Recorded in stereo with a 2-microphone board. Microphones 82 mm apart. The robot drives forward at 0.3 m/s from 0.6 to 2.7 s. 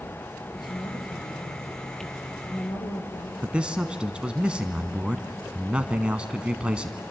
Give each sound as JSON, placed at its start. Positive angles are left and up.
{"t": 0.5, "sound": "a woman speaking", "side_deg": 65, "distance_m": 3.5}
{"t": 3.4, "sound": "a man speaking", "side_deg": -15, "distance_m": 1.0}